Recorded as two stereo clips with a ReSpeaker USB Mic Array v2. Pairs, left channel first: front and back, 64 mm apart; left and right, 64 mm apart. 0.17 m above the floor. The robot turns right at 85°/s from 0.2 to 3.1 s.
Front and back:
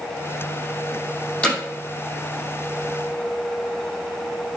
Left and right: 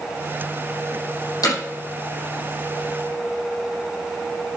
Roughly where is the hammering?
Left.